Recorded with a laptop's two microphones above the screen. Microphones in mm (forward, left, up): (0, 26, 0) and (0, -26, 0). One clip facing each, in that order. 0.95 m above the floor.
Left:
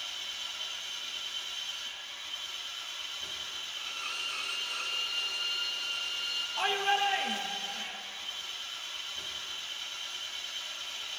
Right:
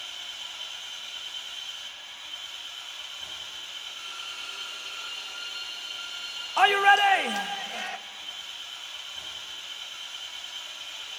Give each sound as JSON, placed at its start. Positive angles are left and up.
{"t": 0.0, "sound": "an engine running", "side_deg": -20, "distance_m": 2.5}
{"t": 3.8, "sound": "a violin", "side_deg": 80, "distance_m": 2.5}
{"t": 6.6, "sound": "a shout", "side_deg": -80, "distance_m": 0.8}